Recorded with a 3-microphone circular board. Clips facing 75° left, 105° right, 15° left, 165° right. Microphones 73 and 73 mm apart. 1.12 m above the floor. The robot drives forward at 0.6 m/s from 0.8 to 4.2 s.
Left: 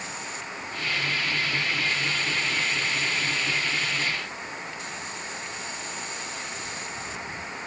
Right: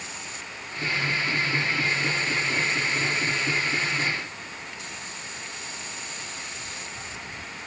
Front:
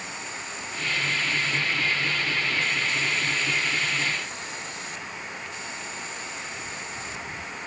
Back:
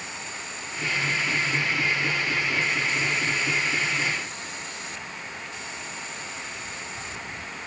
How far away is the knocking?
No knocking in this recording.